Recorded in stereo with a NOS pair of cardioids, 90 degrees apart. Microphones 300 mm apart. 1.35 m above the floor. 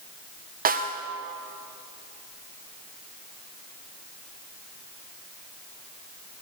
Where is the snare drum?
30° right, 0.8 m.